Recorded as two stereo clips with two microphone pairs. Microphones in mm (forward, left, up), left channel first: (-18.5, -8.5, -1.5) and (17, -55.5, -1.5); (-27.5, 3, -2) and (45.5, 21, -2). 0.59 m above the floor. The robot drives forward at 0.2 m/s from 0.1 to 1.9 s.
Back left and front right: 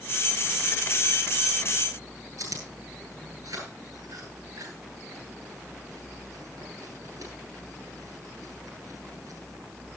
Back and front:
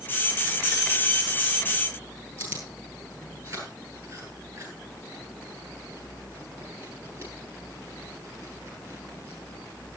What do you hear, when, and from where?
2.4 s chewing: 40° right, 7 m